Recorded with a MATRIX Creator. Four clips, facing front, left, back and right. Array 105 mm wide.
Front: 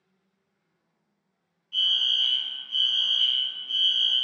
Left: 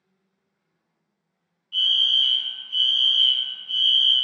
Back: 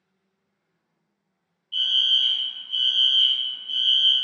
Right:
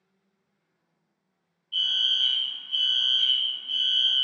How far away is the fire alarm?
About 1.9 m.